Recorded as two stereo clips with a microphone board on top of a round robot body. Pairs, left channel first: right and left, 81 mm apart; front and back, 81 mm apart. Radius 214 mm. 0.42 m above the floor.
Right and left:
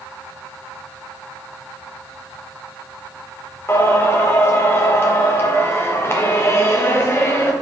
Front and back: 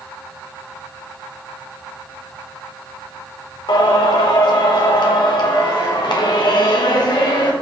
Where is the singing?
30° right, 0.7 m.